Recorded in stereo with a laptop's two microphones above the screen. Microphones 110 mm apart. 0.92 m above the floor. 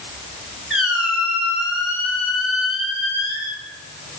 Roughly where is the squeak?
Centre.